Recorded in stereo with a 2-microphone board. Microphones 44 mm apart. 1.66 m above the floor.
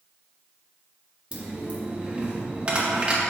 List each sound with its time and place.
1.3 s a dropped coin: 25° right (ahead or behind), 1.4 m